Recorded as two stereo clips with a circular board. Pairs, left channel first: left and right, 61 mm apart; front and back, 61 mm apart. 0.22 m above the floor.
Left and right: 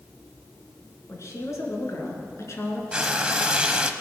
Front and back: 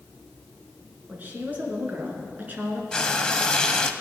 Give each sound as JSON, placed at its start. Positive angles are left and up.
{"t": 1.1, "sound": "a woman speaking", "azimuth_deg": 120, "distance_m": 3.0}
{"t": 2.9, "sound": "frying", "azimuth_deg": -50, "distance_m": 0.8}